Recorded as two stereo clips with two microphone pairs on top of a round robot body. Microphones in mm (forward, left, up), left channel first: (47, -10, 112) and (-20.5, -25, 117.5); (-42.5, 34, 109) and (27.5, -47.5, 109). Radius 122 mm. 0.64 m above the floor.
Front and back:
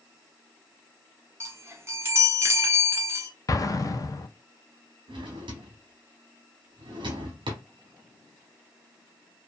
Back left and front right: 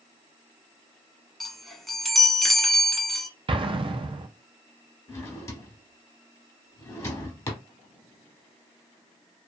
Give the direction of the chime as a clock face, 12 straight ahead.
5 o'clock.